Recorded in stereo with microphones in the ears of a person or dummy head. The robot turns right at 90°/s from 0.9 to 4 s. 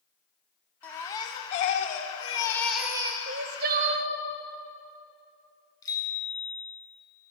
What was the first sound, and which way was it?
A baby crying, 15° left.